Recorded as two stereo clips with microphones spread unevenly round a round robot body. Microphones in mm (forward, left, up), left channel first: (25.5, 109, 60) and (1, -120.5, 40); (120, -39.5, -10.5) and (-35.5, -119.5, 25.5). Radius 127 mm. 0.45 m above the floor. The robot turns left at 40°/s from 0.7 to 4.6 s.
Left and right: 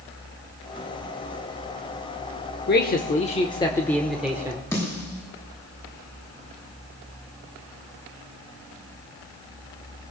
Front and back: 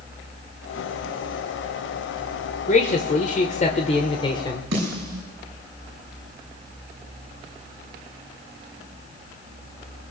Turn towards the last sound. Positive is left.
turn(degrees=160)